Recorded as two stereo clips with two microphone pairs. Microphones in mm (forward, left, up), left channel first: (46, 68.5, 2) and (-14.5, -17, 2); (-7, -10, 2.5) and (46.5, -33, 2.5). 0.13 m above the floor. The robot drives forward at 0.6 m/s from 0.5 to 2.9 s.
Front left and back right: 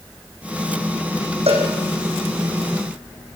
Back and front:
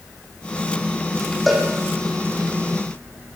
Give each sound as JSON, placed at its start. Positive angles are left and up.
{"t": 1.5, "sound": "a cowbell", "azimuth_deg": -110, "distance_m": 5.5}